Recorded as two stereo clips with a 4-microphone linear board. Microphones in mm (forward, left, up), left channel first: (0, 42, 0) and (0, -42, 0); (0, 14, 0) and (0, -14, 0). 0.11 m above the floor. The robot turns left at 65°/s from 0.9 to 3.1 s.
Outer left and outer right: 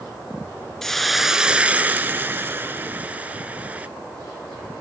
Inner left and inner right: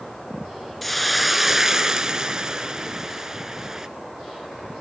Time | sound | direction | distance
0.8 | a hiss | 5° left (ahead or behind) | 0.5 m